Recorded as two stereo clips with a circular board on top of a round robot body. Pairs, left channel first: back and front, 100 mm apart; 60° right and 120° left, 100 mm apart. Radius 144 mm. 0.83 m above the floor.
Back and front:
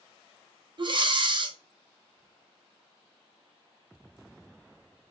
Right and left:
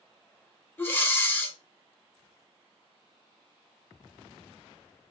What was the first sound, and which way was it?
Breathing, 5° left.